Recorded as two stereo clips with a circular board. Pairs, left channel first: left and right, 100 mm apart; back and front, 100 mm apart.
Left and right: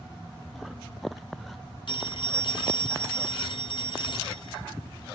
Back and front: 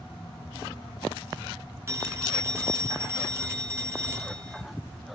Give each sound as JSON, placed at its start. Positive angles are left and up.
{"t": 1.9, "sound": "a phone ringing", "azimuth_deg": 60, "distance_m": 2.0}